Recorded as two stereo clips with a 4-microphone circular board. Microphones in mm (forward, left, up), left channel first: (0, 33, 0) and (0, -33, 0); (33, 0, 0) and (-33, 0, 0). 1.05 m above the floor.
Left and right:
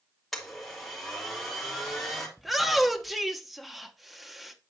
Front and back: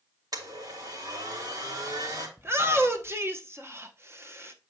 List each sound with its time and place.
0.3 s a blender: straight behind, 2.5 m
2.4 s a shout: straight behind, 0.9 m